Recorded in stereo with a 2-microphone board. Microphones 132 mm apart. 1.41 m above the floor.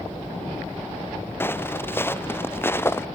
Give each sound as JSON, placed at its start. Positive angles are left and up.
{"t": 1.4, "sound": "footsteps", "side_deg": 15}